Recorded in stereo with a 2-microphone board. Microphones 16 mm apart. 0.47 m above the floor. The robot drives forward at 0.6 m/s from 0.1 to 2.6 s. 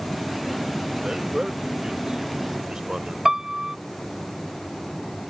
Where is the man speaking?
35° right (ahead or behind); by 3.1 s 45° right (ahead or behind).